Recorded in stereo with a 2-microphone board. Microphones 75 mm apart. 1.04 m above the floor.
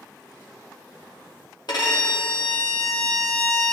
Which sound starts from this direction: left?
A violin, at 1.7 s.